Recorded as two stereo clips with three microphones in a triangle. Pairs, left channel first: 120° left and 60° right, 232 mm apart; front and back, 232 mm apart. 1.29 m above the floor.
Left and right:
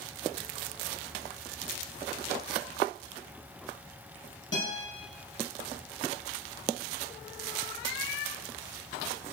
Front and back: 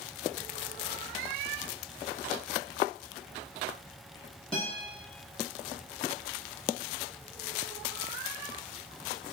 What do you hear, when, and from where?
4.5 s a guitar: 85° left, 1.0 m